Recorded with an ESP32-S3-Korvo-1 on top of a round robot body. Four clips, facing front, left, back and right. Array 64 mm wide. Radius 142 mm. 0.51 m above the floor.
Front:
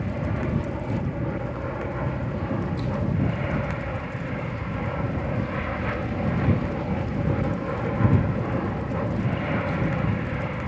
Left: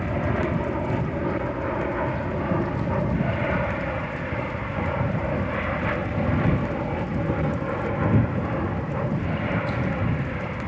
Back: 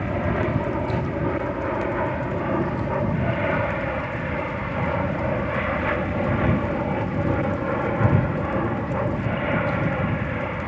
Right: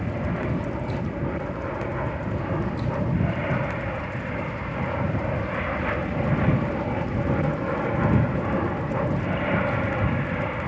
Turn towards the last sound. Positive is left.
turn(degrees=-140)